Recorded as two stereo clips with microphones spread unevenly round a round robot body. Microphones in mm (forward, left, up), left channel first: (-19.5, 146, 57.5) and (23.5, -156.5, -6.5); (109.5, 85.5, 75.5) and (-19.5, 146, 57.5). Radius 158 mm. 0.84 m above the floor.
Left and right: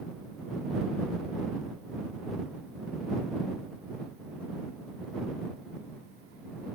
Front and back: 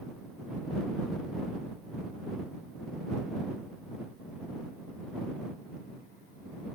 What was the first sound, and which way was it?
Only background noise.